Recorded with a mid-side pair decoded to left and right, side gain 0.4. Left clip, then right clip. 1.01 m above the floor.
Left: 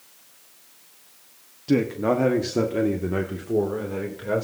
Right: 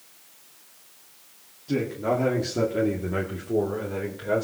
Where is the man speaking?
65° left, 1.5 m; by 4.4 s 20° left, 3.5 m.